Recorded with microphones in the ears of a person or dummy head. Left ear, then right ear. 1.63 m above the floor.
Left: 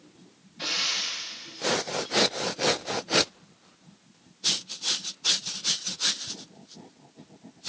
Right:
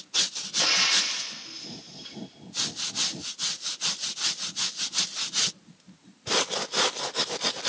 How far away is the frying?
About 1.0 m.